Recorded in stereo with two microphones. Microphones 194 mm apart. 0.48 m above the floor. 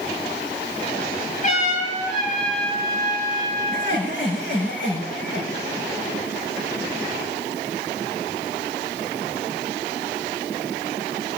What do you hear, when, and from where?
1.4 s a trumpet: 40° left (ahead or behind), 8 m
3.7 s laughter: 80° left, 5.5 m